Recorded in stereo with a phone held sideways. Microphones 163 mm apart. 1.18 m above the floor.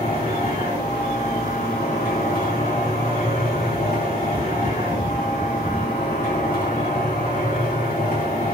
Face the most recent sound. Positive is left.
turn(degrees=60)  # may be behind; listen again after turning